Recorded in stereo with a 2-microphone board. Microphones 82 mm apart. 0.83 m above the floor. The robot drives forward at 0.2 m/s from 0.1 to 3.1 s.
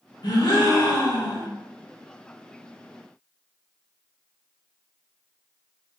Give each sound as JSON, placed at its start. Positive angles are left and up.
{"t": 0.2, "sound": "a gasp", "side_deg": 60, "distance_m": 0.7}